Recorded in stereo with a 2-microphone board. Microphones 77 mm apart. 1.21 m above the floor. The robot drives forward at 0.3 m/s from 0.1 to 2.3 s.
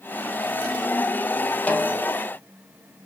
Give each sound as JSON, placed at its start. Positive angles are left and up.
{"t": 1.7, "sound": "a snare drum", "side_deg": 20, "distance_m": 0.6}